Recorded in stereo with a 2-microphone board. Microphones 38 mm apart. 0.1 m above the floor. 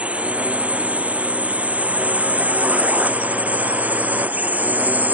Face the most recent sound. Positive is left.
turn(degrees=-45)  # may be behind; listen again after turning